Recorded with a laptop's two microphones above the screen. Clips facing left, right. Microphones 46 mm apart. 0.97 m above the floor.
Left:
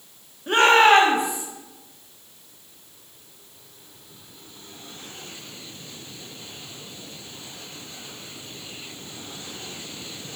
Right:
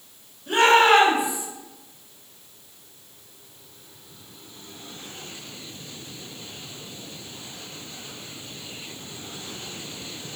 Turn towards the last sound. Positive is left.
turn(degrees=65)  # may be behind; listen again after turning